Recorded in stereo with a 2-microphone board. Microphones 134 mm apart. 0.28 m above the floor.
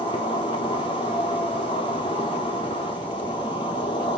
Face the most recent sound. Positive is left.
turn(degrees=40)  # may be behind; listen again after turning